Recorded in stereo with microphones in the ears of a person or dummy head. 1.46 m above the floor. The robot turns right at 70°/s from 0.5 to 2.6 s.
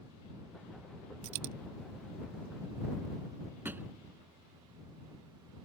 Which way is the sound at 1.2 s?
60° right (ahead or behind).